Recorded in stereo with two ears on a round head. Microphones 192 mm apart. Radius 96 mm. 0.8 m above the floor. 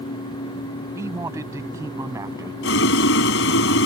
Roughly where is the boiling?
Left.